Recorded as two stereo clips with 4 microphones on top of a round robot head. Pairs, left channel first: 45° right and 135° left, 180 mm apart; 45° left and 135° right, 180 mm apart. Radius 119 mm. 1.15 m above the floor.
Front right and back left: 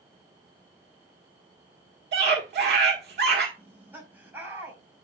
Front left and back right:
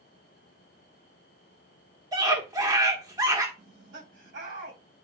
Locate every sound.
2.1 s a scream: 160° left, 1.6 m
3.6 s laughter: 150° right, 4.5 m